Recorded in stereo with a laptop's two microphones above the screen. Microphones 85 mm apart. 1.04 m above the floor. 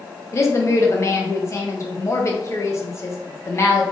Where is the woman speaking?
35° left (ahead or behind), 0.6 m.